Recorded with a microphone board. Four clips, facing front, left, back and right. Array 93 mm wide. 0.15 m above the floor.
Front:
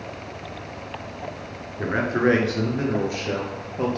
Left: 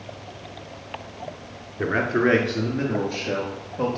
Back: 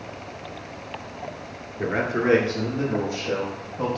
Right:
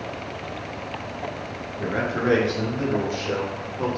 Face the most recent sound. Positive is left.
turn(degrees=40)